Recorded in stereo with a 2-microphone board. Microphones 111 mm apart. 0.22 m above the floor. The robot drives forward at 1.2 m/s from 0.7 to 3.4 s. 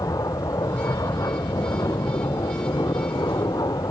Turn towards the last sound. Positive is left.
turn(degrees=35)  # may be behind; listen again after turning